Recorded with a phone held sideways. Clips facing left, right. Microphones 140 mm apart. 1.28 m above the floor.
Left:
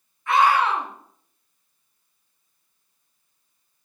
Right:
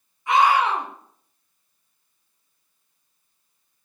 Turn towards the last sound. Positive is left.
turn(degrees=-15)  # may be behind; listen again after turning